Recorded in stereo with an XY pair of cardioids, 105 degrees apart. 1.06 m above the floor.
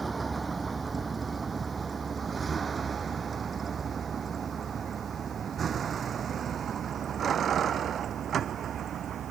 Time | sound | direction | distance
0.0 | a vehicle | 25° right | ?